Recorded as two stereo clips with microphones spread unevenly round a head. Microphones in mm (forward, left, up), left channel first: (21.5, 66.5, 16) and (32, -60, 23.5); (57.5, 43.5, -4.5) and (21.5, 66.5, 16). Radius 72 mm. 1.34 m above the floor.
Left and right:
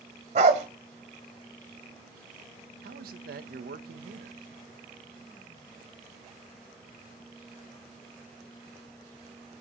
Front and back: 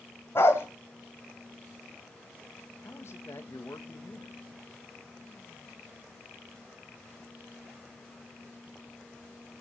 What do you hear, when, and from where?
0.3 s a dog barking: 105° right, 1.6 m
2.8 s a man speaking: 85° right, 1.4 m